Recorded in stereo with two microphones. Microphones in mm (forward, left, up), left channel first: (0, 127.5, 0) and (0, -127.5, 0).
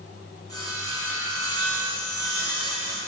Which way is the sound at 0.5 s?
75° right (ahead or behind).